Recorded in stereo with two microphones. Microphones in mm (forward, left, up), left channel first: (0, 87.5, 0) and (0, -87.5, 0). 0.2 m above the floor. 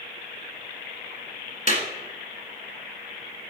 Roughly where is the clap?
Left.